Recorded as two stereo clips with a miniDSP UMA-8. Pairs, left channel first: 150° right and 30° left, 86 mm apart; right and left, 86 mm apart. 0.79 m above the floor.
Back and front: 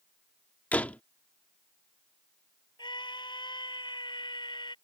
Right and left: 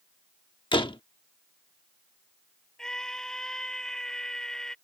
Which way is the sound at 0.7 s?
75° right.